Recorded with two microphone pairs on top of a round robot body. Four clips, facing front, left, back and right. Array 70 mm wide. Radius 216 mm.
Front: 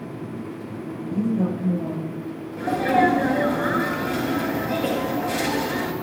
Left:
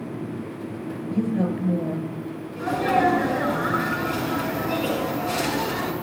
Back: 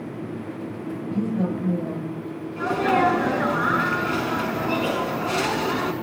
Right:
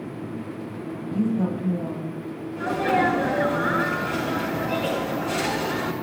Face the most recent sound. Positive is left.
turn(degrees=180)